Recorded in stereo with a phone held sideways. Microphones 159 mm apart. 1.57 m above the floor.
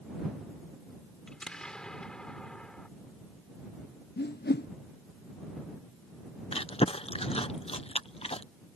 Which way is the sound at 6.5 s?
35° left (ahead or behind).